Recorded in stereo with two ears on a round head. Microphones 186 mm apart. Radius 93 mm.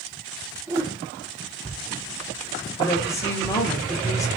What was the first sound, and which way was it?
A whoosh, 15° right (ahead or behind).